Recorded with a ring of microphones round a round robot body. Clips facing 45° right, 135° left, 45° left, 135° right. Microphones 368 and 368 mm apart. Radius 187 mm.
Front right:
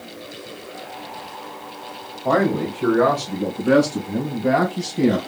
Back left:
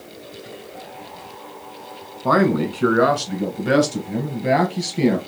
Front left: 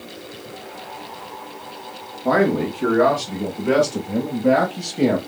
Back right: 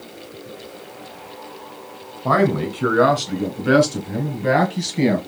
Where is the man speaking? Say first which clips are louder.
Back left 2 dB, front left 1 dB; 175° left, 1.8 m; by 5.2 s 155° right, 3.5 m.